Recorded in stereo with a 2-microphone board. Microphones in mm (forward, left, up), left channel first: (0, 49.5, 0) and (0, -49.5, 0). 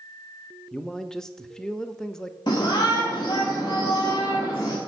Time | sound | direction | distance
0.7 | a man speaking | 5° left (ahead or behind) | 0.6 m
2.5 | a shout | 50° left (ahead or behind) | 1.5 m